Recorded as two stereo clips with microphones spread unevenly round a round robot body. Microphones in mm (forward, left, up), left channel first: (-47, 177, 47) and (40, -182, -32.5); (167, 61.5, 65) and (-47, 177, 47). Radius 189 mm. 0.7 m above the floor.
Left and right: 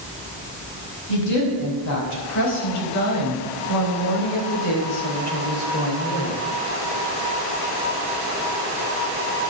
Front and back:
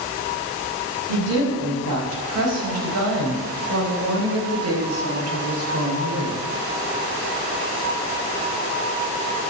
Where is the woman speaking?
150° left, 5.5 m; by 6.4 s 165° left, 3 m.